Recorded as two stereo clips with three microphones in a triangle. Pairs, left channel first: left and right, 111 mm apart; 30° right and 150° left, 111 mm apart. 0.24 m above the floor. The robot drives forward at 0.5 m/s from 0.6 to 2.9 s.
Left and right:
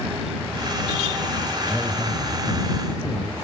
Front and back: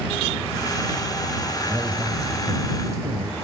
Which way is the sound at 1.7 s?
165° right.